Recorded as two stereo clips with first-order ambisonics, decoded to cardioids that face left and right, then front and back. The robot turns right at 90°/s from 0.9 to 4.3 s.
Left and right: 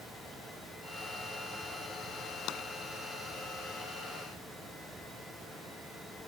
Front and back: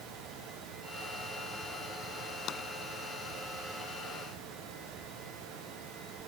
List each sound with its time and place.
2.5 s tapping: 55° left; by 2.6 s 70° left